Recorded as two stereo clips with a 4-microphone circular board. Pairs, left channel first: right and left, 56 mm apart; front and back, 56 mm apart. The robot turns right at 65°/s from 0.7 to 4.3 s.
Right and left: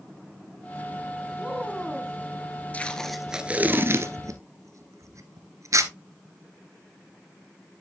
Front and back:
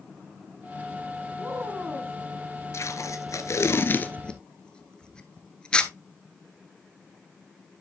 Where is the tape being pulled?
30° right, 0.9 m; by 5.9 s 75° left, 0.9 m.